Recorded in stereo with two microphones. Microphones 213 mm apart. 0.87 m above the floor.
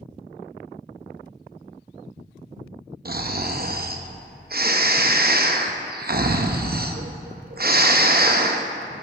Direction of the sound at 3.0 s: 50° right (ahead or behind).